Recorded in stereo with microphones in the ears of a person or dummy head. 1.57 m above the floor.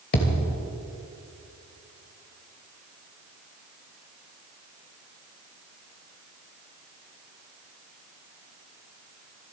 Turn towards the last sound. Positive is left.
turn(degrees=45)  # may be behind; listen again after turning